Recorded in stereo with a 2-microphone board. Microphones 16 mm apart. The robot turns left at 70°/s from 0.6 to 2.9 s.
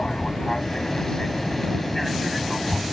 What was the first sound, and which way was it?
An aircraft, 110° left.